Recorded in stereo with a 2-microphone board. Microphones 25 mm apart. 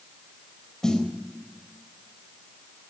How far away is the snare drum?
About 4 m.